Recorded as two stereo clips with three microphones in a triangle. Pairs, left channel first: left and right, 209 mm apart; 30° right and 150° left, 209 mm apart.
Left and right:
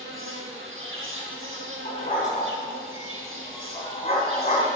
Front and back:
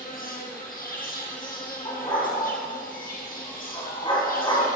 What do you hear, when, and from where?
0.0 s an insect: 80° right, 1.5 m
1.9 s a dog barking: 35° left, 3 m